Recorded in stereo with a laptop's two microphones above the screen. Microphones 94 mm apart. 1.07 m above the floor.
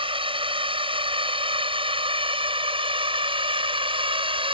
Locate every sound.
0.0 s a drone: 75° right (ahead or behind)